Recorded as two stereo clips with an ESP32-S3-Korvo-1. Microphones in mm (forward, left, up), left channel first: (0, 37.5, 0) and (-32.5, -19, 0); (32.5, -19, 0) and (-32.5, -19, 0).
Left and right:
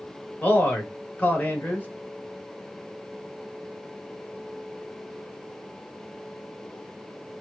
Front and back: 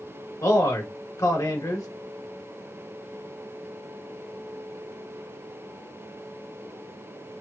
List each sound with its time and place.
0.4 s a man speaking: straight ahead, 1.2 m